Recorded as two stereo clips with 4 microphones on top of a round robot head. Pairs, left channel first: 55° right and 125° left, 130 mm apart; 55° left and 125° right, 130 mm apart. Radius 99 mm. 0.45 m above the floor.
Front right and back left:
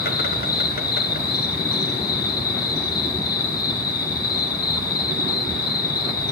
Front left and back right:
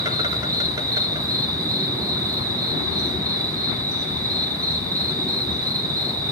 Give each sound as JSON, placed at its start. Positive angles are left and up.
{"t": 0.0, "sound": "an insect", "azimuth_deg": -60, "distance_m": 3.0}